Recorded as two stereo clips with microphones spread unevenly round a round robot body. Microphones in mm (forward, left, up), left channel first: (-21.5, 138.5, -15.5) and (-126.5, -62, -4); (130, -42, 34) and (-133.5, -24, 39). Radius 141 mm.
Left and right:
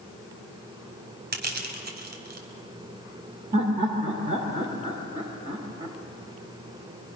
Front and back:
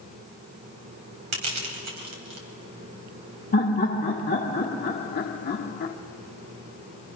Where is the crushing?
160° right, 3.5 m.